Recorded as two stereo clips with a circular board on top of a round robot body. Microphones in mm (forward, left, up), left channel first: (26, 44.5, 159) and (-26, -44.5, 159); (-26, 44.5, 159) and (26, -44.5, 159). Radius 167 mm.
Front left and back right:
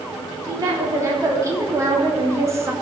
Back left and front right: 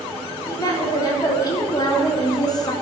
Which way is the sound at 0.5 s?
Straight behind.